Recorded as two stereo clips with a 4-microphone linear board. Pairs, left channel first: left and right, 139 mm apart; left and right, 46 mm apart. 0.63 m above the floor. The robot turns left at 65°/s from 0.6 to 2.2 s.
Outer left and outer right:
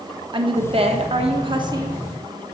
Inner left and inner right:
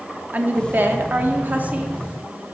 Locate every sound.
0.3 s a woman speaking: 60° right, 1.1 m; by 2.0 s 150° right, 1.1 m